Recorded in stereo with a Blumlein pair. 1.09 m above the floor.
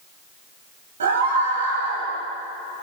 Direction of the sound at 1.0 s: 65° right.